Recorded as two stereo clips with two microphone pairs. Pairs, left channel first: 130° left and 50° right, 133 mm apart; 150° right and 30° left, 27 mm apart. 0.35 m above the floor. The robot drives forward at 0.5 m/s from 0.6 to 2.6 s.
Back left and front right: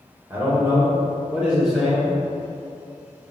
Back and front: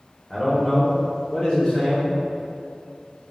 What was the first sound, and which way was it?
A man speaking, 85° right.